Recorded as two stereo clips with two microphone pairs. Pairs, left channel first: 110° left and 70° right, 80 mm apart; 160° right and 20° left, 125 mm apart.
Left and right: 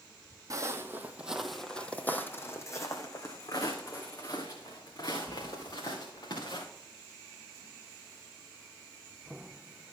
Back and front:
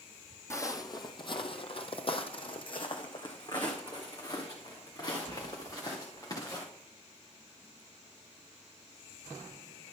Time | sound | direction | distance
0.5 | footsteps | 105° right | 0.9 m